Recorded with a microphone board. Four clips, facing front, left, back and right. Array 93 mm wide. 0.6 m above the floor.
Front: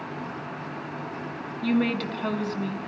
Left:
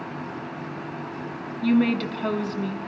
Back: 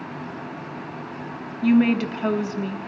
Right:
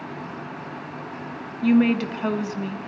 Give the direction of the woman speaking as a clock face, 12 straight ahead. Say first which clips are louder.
Right 2 dB, back 7 dB; 5 o'clock.